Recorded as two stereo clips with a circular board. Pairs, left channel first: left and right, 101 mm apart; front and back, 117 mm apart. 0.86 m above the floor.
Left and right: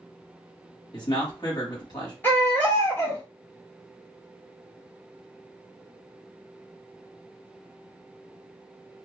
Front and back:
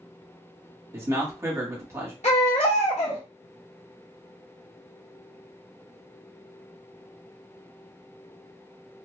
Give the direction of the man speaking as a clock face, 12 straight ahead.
8 o'clock.